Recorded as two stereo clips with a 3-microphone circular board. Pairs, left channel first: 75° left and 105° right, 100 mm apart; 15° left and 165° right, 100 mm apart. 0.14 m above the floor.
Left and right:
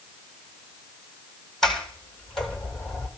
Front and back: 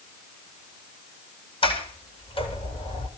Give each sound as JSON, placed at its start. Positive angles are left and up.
{"t": 1.6, "sound": "a sliding door", "azimuth_deg": -10, "distance_m": 3.0}